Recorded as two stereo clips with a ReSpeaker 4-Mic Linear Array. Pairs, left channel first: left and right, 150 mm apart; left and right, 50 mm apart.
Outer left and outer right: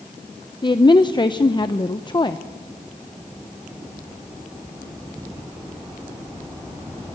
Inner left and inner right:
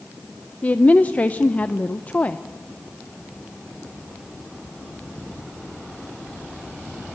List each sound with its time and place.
0.6 s a woman speaking: 30° left (ahead or behind), 0.6 m